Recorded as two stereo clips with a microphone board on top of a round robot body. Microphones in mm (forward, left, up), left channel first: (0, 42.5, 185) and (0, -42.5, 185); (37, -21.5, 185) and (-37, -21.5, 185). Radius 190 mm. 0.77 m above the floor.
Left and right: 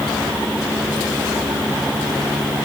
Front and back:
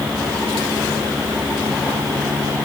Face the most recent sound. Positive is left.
No sound to turn to.